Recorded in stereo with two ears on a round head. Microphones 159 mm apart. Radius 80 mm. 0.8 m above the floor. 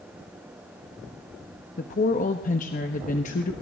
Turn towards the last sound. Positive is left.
turn(degrees=45)  # may be behind; listen again after turning